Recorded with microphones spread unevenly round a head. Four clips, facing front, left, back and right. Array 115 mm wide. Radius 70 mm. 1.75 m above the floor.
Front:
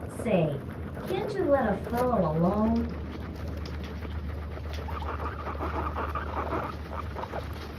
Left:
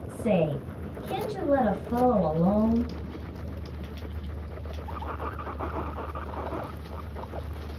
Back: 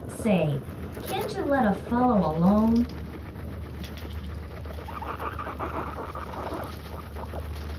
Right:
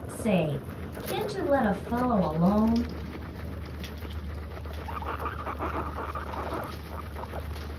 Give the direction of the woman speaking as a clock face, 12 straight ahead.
5 o'clock.